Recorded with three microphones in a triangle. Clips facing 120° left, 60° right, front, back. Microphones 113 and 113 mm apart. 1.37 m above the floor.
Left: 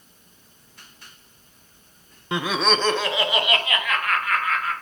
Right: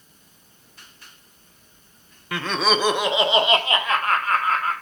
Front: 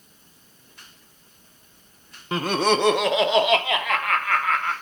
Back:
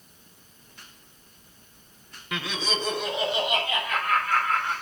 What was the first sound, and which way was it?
Laughter, 55° left.